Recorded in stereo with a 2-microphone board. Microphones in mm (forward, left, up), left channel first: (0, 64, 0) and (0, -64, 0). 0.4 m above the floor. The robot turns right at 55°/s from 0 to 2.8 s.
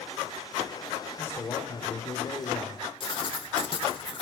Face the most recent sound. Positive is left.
turn(degrees=40)  # may be behind; listen again after turning